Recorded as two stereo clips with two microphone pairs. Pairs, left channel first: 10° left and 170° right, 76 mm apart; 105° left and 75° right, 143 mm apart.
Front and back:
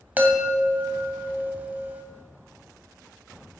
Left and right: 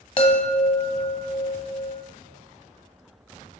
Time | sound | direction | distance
0.2 | a chime | 130° left | 1.0 m